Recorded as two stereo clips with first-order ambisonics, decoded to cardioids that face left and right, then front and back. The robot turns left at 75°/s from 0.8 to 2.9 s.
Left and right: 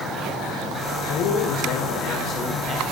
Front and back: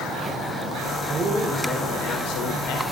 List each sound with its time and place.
1.1 s a man speaking: 115° left, 5 m; by 2.8 s 15° right, 5 m